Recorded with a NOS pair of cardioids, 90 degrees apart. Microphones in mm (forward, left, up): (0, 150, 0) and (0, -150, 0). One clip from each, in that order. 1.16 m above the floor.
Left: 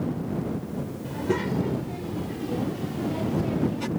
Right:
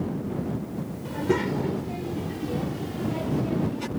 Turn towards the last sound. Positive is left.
turn(degrees=0)